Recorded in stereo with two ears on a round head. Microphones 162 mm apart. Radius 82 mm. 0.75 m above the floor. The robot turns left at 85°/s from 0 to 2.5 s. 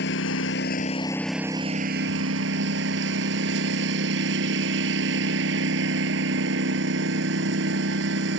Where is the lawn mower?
110° left; by 8.4 s 100° right.